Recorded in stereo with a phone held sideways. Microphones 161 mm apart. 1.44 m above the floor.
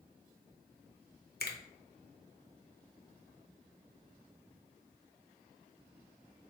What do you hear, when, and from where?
1.4 s a finger snap: 75° left (ahead or behind), 0.6 m